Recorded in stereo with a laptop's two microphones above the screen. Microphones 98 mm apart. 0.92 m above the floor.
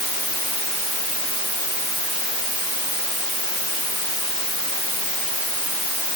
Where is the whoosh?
No whoosh in this recording.